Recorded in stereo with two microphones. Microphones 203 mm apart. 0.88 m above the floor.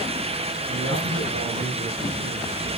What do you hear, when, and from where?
0.7 s a man speaking: 60° right (ahead or behind), 5 m